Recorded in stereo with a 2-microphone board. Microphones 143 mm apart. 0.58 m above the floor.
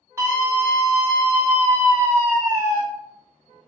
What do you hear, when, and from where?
0.2 s a scream: 20° right (ahead or behind), 1.7 m